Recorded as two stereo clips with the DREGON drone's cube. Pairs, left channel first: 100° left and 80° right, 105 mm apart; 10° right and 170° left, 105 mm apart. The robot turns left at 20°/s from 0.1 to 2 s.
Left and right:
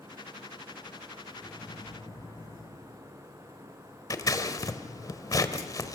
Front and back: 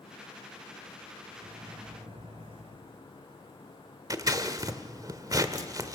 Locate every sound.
1.4 s a microwave: 160° left, 3 m; by 2.8 s 150° left, 3 m
4.1 s scissors: 135° left, 1.6 m